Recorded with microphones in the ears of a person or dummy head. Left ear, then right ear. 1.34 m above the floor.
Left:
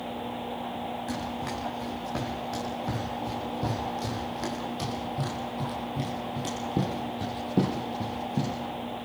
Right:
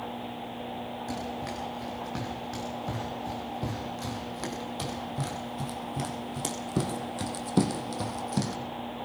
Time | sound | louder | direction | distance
1.1 | running footsteps | left 2 dB | 5° left (ahead or behind) | 6 m